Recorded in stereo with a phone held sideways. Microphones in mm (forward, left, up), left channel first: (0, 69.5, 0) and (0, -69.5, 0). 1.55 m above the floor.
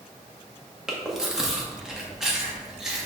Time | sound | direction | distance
0.9 | chewing | 5° right (ahead or behind) | 1.3 m